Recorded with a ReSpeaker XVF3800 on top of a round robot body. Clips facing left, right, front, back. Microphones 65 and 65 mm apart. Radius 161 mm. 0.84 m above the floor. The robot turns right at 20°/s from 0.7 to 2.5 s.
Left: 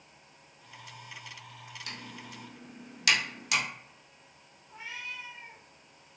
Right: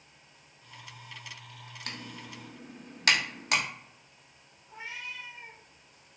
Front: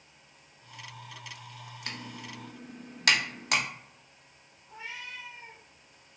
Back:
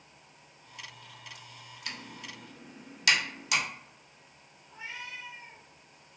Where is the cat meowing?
20° right, 1.8 m.